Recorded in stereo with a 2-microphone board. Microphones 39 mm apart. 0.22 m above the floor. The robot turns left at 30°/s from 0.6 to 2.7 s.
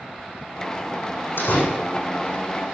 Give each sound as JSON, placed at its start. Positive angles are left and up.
{"t": 1.4, "sound": "a door slam", "side_deg": 70, "distance_m": 6.5}